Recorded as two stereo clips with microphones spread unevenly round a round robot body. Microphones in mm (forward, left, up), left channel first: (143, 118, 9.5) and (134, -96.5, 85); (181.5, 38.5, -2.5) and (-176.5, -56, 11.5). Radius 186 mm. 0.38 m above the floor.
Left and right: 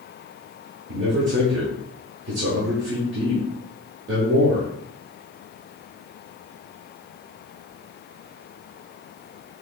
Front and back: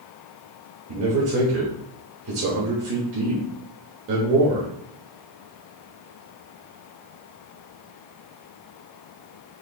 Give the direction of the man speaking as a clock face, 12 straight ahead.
4 o'clock.